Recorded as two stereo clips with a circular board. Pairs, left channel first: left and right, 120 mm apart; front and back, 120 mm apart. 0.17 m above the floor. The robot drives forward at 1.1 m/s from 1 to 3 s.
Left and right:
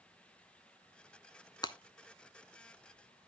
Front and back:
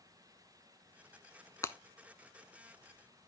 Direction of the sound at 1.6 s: 55° left.